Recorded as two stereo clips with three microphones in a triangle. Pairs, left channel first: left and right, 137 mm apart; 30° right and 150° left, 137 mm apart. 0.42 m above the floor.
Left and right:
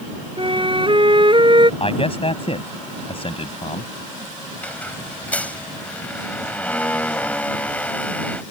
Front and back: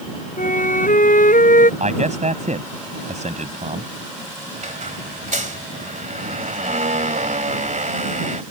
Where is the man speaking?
130° left.